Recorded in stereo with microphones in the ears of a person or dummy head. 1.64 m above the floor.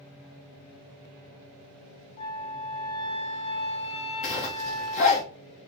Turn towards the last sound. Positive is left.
turn(degrees=35)  # may be behind; listen again after turning